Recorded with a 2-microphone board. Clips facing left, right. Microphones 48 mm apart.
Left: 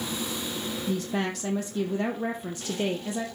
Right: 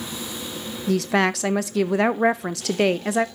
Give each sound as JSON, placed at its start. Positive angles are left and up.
{"t": 0.9, "sound": "a woman speaking", "side_deg": -85, "distance_m": 0.7}